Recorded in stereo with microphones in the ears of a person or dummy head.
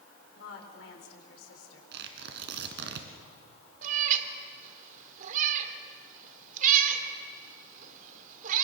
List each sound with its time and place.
0.4 s a woman speaking: 85° left, 4.5 m
1.9 s tearing paper: 65° right (ahead or behind), 2.5 m
3.8 s a cat meowing: 50° right (ahead or behind), 1.7 m